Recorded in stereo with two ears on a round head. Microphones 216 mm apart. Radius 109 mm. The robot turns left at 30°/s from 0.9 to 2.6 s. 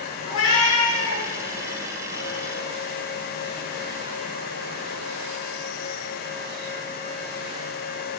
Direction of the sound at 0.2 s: 65° left (ahead or behind).